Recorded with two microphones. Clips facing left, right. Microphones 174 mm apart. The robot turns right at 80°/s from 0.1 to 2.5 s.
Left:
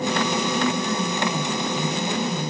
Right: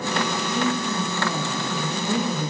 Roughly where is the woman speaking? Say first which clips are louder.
Left 1 dB; behind left.